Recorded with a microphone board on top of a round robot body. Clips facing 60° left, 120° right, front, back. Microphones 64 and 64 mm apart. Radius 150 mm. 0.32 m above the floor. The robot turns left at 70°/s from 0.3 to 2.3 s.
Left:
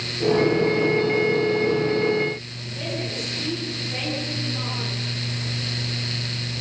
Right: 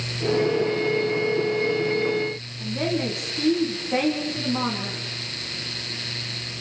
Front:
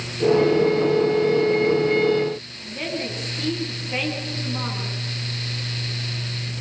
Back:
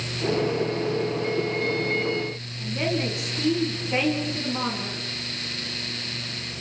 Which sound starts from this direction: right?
A woman speaking, at 2.6 s.